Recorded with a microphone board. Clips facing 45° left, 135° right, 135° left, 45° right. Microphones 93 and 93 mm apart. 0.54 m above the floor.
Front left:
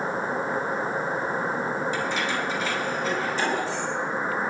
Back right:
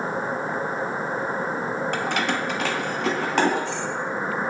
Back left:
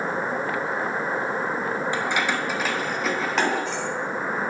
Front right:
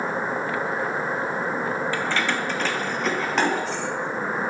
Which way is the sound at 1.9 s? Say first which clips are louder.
Back right 2 dB, even; 155° right.